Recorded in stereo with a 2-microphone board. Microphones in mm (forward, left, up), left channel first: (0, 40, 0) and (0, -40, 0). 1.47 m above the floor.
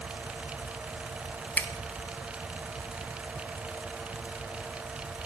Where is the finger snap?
15° left (ahead or behind), 1.2 m.